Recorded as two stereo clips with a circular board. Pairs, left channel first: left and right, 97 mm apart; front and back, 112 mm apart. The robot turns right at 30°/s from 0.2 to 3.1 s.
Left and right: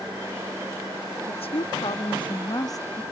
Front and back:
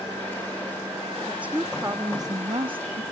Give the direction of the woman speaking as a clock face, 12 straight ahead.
9 o'clock.